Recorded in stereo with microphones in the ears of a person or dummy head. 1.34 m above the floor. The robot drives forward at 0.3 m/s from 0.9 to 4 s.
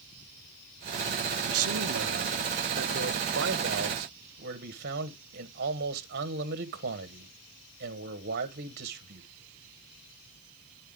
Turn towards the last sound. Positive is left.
turn(degrees=-50)  # may be behind; listen again after turning